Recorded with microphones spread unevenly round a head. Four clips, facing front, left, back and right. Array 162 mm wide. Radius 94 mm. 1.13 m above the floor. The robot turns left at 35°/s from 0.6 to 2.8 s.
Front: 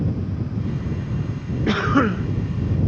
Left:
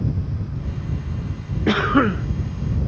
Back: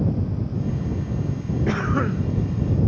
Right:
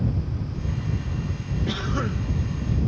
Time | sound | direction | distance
1.7 | a cough | 50° left | ?